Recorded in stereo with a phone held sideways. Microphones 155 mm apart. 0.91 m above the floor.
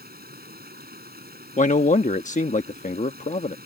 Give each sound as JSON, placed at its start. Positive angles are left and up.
{"t": 0.0, "sound": "running water", "side_deg": -85}
{"t": 1.6, "sound": "a man speaking", "side_deg": 55}